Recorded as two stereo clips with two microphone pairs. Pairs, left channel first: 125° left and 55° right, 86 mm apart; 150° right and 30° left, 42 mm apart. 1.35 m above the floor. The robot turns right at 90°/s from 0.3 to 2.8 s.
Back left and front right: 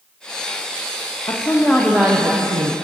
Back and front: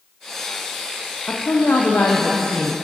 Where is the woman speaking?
165° left, 0.5 m; by 2.7 s 65° right, 0.5 m.